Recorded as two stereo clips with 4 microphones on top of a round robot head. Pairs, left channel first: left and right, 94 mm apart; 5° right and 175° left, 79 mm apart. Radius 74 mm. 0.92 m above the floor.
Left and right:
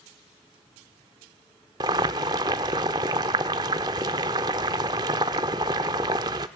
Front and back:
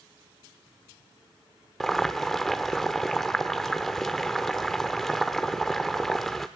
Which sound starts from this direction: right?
Boiling, at 1.8 s.